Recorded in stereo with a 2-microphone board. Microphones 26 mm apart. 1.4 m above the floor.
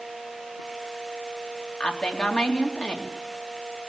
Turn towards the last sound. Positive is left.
turn(degrees=50)  # may be behind; listen again after turning